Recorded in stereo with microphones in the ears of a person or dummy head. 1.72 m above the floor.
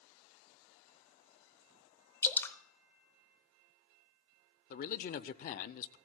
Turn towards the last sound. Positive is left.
turn(degrees=45)  # may be behind; listen again after turning